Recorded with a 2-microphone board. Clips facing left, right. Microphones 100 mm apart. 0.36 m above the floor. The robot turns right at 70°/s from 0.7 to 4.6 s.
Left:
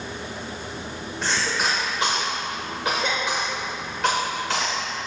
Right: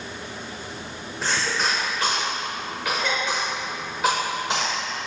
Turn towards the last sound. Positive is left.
turn(degrees=-20)  # may be behind; listen again after turning